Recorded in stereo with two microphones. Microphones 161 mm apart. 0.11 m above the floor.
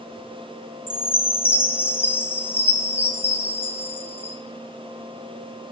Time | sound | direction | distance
0.9 | a chime | 15° left (ahead or behind) | 1.0 m